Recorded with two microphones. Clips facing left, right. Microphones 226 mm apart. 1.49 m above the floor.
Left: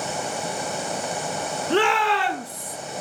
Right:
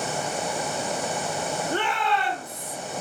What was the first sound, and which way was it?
A shout, 85° left.